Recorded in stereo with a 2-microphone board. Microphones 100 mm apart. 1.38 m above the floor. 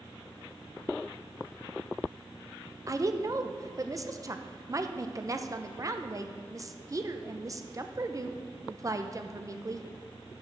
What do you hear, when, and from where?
2.9 s a woman speaking: 35° right (ahead or behind), 0.5 m